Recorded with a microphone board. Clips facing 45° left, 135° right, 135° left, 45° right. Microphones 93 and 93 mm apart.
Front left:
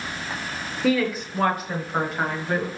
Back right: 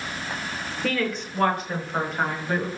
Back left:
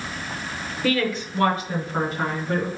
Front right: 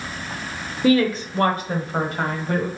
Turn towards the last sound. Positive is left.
turn(degrees=-45)